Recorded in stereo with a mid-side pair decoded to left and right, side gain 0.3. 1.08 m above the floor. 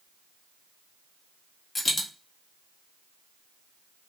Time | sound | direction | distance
1.8 | a dropped coin | 50° left | 1.3 m